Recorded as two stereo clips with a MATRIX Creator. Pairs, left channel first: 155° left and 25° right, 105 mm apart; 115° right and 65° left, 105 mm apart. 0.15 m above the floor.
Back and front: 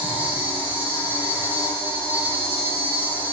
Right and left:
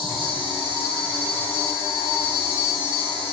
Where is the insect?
50° left, 1.0 m.